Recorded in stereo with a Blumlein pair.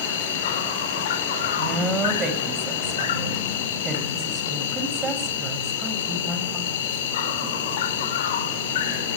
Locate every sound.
0.0 s an insect: 55° left, 3.5 m
1.6 s a woman speaking: 20° right, 7 m